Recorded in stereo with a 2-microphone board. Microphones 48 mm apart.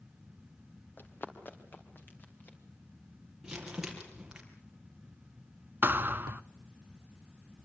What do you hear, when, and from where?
1.0 s running footsteps: 45° left (ahead or behind), 3.5 m; by 2.6 s 35° left (ahead or behind), 5 m
3.4 s crumpling: 15° right (ahead or behind), 5 m
5.8 s a thud: 45° right (ahead or behind), 0.7 m